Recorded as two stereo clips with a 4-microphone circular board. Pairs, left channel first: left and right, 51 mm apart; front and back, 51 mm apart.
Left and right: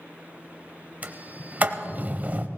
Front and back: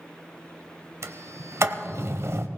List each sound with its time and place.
1.0 s a sliding door: 145° right, 0.9 m